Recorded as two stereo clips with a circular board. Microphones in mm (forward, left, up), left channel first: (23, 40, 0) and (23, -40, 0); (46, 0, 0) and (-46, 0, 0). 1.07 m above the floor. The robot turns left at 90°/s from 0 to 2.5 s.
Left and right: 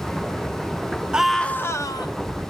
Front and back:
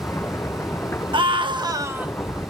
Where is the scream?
165° right, 1.4 m; by 2.1 s 105° left, 1.4 m.